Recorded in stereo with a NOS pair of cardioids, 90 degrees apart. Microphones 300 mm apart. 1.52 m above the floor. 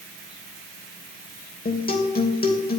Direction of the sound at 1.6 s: 30° left.